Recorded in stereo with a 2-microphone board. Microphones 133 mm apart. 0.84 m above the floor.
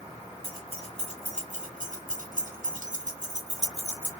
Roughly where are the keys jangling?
Right.